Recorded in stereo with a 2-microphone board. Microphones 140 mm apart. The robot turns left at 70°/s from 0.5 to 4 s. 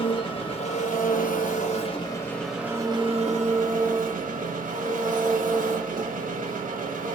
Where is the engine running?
140° left, 0.9 m; by 7.2 s 105° right, 0.9 m.